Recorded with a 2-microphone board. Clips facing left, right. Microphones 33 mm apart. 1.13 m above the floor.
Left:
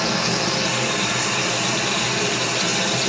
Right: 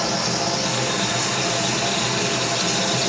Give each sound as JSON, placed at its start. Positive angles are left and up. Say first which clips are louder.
{"t": 0.0, "sound": "running water", "louder": "left 1 dB", "side_deg": 45, "distance_m": 3.5}